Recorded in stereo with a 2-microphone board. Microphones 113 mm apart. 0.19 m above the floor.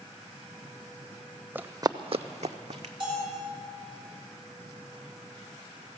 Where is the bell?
40° right (ahead or behind), 3 m.